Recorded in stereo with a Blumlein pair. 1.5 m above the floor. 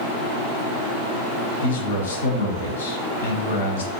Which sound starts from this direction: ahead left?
A man speaking, at 1.6 s.